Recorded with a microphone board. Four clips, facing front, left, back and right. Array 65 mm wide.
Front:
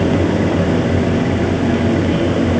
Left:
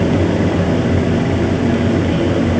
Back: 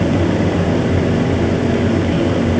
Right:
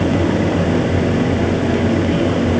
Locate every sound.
Only background noise.